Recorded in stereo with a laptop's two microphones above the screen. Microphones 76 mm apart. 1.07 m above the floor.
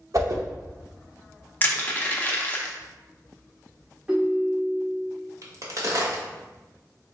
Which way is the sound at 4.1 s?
20° right (ahead or behind).